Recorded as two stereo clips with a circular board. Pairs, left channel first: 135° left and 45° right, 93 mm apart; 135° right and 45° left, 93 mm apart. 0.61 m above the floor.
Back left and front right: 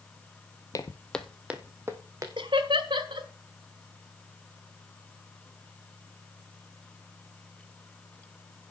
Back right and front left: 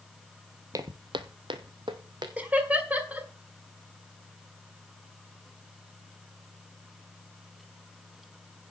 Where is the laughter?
30° right, 1.5 m.